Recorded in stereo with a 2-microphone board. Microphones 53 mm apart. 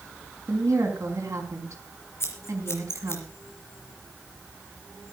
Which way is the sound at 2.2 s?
55° left (ahead or behind).